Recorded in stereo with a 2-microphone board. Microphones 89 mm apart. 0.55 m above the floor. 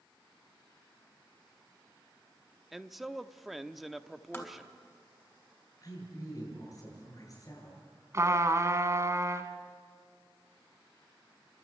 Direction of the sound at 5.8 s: 40° left (ahead or behind).